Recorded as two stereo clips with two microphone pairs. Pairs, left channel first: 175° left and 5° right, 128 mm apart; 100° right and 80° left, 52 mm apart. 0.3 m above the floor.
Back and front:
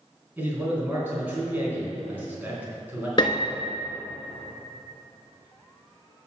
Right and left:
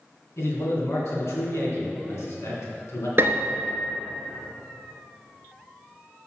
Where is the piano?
120° left, 0.9 m.